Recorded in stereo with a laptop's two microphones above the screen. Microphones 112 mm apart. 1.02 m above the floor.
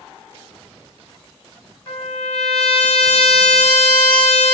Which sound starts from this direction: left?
A trumpet, at 1.9 s.